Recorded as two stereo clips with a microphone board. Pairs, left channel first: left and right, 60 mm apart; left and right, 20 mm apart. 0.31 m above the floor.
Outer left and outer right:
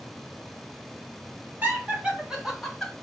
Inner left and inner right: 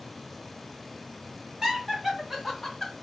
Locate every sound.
1.6 s laughter: 30° right (ahead or behind), 2.5 m; by 2.9 s 10° left (ahead or behind), 1.7 m